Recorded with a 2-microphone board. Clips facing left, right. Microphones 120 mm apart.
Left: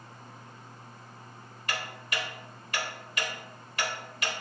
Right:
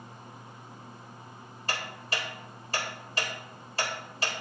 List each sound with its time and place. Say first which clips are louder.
1.7 s ticking: right 1 dB; 30° right (ahead or behind), 1.3 m